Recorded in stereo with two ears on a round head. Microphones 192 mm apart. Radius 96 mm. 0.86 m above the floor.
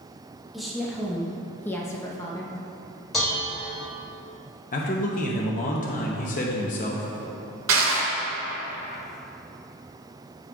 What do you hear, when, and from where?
0.5 s a woman speaking: centre (ahead or behind), 1.5 m; by 2.5 s 15° left (ahead or behind), 1.0 m
3.1 s dishes clattering: centre (ahead or behind), 2.5 m
4.7 s a man speaking: 40° left (ahead or behind), 0.8 m
7.7 s crushing: 70° right (ahead or behind), 2 m